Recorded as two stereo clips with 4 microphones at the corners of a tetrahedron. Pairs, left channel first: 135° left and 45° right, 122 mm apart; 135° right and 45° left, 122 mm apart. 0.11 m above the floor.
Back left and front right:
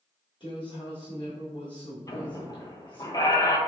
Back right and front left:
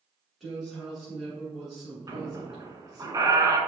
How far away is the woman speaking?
About 1.8 m.